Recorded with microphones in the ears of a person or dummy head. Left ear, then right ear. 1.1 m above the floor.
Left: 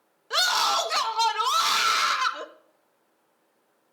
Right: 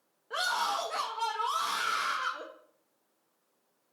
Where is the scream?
70° left (ahead or behind), 1.0 m.